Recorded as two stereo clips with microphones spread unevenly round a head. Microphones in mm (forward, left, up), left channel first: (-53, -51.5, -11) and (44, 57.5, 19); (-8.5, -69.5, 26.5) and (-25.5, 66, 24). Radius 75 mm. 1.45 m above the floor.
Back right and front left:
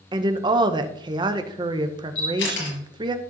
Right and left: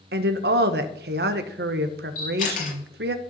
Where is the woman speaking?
105° left, 0.9 m.